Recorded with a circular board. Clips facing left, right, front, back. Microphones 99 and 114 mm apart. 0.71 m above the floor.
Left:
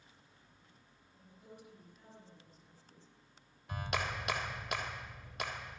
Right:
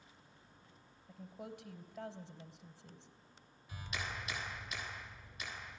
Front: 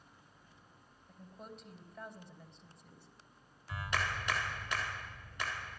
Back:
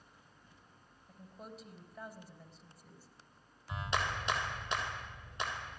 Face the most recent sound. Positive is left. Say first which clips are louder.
# left 7 dB, back 1 dB
turn(degrees=110)